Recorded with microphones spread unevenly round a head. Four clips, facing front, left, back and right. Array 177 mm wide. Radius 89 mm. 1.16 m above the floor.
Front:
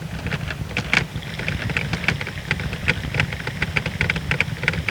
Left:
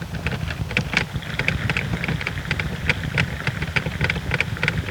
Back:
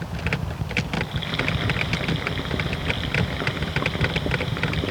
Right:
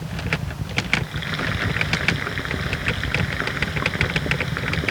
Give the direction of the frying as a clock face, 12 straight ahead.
5 o'clock.